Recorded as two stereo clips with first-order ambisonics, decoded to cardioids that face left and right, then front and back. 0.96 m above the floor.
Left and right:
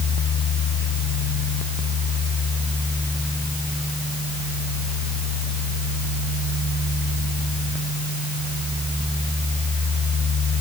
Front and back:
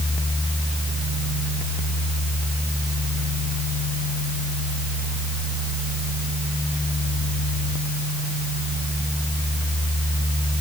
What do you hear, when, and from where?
Only background noise.